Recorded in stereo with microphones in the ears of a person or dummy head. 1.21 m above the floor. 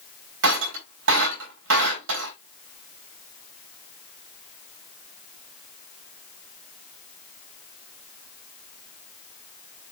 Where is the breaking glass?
80° right, 4 m.